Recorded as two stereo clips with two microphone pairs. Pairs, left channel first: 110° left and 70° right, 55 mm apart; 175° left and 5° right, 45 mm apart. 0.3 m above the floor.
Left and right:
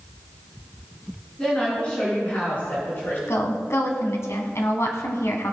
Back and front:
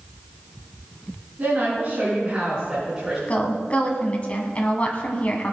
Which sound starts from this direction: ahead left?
A woman speaking, at 1.4 s.